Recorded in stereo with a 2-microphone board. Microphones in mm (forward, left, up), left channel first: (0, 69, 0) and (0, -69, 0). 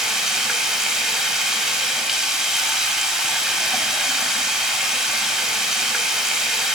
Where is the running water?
5° right (ahead or behind), 1.0 m.